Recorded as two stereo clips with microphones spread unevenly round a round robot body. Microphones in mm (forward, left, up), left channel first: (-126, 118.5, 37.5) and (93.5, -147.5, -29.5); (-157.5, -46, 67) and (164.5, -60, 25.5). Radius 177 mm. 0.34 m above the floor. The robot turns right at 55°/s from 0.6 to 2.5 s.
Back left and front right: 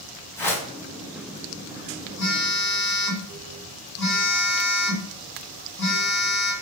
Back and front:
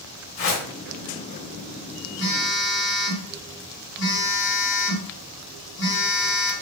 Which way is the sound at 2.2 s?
160° left.